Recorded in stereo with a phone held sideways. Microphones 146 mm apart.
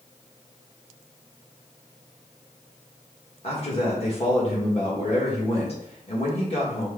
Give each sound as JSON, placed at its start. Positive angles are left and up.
{"t": 3.4, "sound": "a man speaking", "side_deg": 45, "distance_m": 1.6}